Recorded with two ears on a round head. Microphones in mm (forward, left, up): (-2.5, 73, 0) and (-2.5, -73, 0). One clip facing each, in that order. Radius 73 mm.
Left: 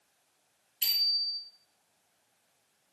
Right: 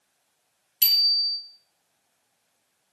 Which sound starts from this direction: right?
A bicycle bell, at 0.8 s.